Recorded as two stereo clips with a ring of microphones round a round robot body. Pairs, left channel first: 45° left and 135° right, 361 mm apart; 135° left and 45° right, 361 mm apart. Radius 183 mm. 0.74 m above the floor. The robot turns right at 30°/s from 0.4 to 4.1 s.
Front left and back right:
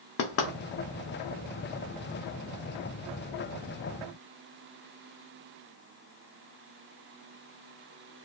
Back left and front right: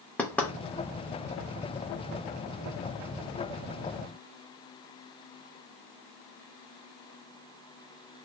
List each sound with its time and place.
0.2 s knocking: 50° left, 0.5 m; by 0.5 s 55° left, 0.5 m